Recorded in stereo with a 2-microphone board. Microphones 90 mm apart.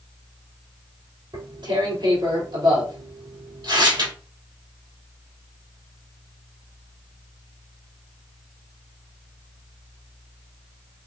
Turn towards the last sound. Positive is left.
turn(degrees=-60)  # may be behind; listen again after turning